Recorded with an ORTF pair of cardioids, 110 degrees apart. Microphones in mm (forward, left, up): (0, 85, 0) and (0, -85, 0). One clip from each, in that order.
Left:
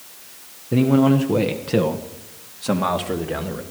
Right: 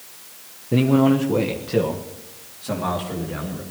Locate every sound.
0.7 s a man speaking: 5° right, 1.3 m; by 3.6 s 55° left, 2.5 m